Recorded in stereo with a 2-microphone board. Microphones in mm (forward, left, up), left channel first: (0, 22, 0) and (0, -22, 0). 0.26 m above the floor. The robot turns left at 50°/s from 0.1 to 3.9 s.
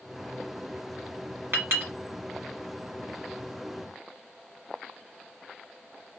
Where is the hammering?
I don't hear hammering.